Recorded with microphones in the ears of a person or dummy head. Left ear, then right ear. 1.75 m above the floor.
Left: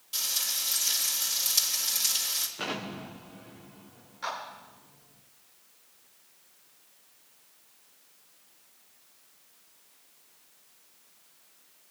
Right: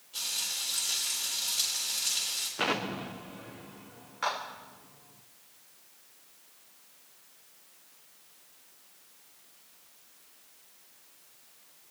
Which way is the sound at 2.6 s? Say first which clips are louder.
Right 4 dB; 10° right (ahead or behind).